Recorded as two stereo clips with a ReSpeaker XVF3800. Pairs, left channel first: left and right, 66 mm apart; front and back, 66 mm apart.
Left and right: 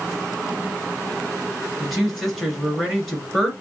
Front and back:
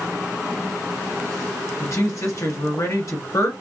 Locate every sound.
1.8 s a woman speaking: 5° left, 2 m